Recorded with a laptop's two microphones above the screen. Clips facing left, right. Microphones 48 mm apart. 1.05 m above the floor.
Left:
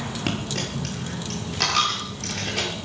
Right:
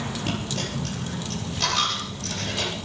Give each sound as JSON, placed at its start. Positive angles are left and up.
{"t": 0.3, "sound": "a dropped coin", "side_deg": 85, "distance_m": 7.5}